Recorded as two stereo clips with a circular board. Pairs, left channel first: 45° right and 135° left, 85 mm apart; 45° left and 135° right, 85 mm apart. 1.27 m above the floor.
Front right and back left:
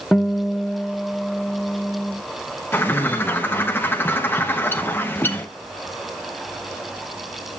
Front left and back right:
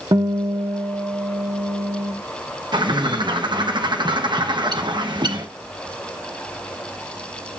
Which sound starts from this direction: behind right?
A guitar, at 0.1 s.